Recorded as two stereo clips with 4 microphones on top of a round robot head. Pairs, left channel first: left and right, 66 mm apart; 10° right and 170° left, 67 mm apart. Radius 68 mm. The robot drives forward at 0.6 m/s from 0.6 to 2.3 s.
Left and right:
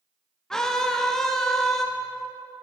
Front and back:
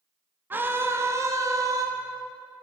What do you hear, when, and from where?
0.5 s a scream: 165° left, 1.0 m; by 1.9 s 175° left, 1.5 m